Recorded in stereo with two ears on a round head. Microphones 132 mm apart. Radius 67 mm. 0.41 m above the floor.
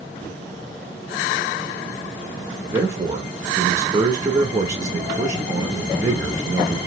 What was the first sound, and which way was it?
A man speaking, 20° right (ahead or behind).